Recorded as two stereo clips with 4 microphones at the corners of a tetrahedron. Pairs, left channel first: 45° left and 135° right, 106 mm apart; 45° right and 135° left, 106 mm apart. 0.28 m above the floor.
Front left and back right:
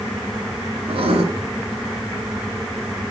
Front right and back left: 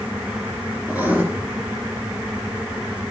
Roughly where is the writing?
Behind right.